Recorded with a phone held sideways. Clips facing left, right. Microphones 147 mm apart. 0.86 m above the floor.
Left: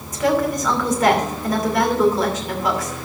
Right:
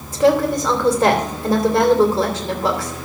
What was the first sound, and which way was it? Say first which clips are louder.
A woman speaking: right 4 dB; 30° right (ahead or behind).